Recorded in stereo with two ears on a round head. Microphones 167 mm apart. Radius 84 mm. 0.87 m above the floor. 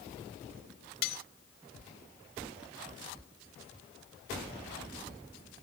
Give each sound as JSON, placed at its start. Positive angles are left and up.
{"t": 1.0, "sound": "cutlery clinking", "side_deg": 70}